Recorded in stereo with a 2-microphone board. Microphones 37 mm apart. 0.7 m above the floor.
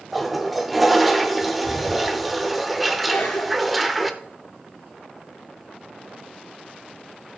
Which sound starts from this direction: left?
A cough, at 3.1 s.